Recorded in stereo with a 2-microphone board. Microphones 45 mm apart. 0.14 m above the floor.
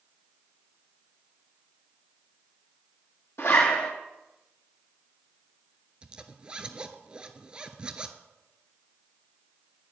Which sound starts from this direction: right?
A zipper, at 6.0 s.